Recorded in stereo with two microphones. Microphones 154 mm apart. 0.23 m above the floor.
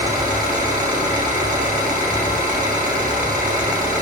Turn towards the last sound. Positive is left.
turn(degrees=-55)  # may be behind; listen again after turning